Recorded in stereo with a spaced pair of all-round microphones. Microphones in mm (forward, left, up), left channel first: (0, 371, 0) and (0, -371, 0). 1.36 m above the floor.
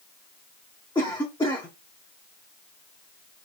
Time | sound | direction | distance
0.9 | a cough | 5° left (ahead or behind) | 0.6 m